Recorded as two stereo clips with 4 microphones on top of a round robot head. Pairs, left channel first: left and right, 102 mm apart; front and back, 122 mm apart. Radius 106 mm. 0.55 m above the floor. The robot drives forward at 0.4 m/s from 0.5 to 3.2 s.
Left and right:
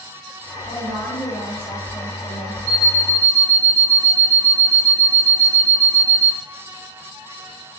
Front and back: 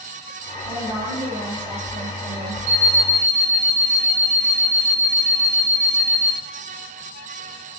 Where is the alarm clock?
155° right, 3.5 m.